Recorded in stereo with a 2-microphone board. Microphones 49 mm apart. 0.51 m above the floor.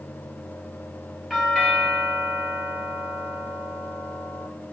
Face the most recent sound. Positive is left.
turn(degrees=-5)  # may be behind; listen again after turning